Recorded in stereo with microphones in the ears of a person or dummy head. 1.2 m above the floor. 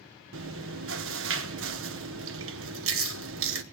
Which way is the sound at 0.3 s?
60° right (ahead or behind).